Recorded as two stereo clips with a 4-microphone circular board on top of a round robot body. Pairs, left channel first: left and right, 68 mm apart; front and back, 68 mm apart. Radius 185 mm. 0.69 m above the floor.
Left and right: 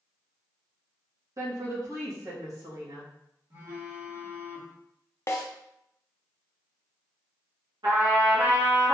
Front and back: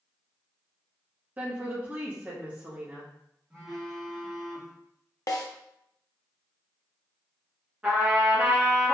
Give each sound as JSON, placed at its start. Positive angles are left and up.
{"t": 1.4, "sound": "a woman speaking", "azimuth_deg": -120, "distance_m": 1.5}
{"t": 3.5, "sound": "a phone buzzing", "azimuth_deg": -95, "distance_m": 1.8}
{"t": 5.3, "sound": "a snare drum", "azimuth_deg": 35, "distance_m": 0.5}
{"t": 7.8, "sound": "a trumpet", "azimuth_deg": -105, "distance_m": 1.9}